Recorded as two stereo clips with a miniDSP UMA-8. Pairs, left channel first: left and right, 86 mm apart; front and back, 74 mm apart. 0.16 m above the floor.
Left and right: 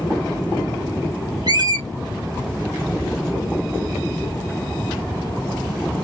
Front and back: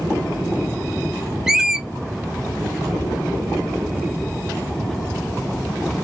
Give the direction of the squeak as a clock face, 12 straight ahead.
3 o'clock.